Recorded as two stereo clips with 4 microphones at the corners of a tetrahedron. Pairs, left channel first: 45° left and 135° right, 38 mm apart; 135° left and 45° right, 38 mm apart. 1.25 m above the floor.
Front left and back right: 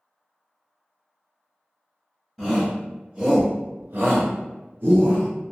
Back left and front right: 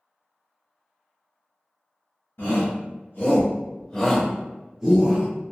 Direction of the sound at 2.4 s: 135° left.